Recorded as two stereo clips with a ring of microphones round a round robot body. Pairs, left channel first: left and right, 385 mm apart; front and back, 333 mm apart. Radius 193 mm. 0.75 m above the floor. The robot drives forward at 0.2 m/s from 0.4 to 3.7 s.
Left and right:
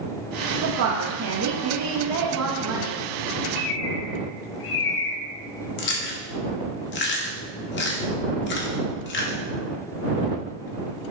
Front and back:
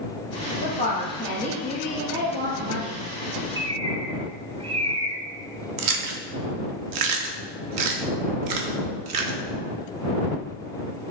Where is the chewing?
150° left, 0.6 m.